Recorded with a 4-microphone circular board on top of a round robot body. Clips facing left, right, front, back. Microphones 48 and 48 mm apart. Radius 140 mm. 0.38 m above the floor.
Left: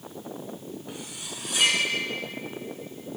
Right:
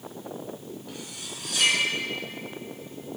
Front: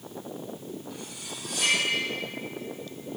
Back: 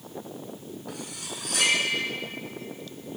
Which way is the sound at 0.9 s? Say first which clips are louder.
Left 1 dB, back 2 dB; 155° left.